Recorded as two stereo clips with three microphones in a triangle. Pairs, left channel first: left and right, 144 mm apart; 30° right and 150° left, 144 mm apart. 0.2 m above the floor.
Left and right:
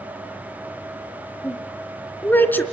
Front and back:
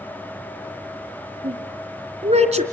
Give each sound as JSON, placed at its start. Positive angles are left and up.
{"t": 1.4, "sound": "a woman speaking", "azimuth_deg": 165, "distance_m": 2.5}